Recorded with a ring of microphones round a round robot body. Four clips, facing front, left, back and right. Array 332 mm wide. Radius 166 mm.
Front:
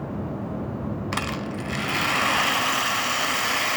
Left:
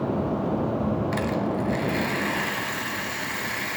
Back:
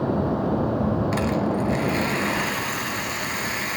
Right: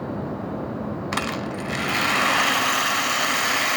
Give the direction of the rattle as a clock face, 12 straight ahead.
2 o'clock.